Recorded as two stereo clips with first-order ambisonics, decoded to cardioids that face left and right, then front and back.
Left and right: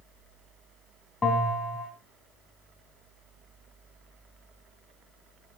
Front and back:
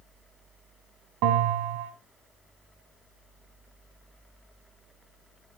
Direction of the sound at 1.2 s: 165° left.